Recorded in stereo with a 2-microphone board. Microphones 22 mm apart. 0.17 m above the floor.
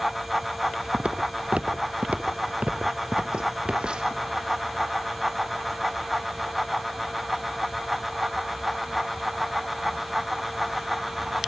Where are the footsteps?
55° right (ahead or behind), 1.5 m; by 4.2 s 45° right (ahead or behind), 2.5 m.